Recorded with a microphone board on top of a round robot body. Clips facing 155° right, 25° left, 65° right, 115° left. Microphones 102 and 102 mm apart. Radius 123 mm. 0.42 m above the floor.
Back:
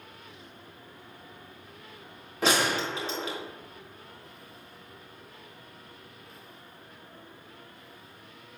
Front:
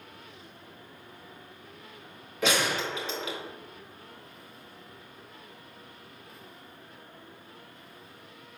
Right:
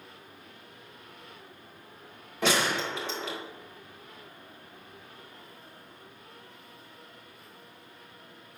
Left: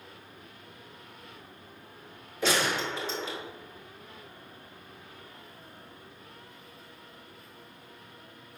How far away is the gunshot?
About 2.5 m.